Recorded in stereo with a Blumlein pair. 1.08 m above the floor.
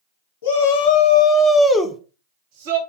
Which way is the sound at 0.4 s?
55° left.